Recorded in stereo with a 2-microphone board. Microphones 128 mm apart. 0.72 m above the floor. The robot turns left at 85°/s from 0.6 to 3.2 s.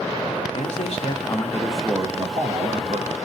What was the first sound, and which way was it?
A man speaking, 100° left.